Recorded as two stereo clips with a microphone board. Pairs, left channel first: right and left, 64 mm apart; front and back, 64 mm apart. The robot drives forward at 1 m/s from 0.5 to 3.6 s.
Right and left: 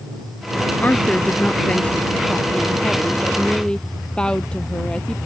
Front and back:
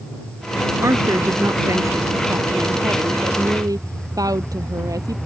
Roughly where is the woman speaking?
Behind right.